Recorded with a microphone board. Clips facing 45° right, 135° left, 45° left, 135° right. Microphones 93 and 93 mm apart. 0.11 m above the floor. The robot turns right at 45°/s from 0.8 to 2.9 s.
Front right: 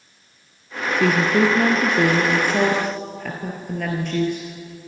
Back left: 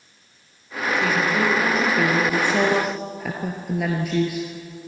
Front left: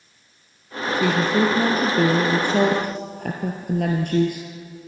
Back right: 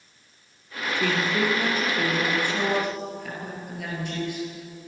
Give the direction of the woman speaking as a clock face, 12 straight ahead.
1 o'clock.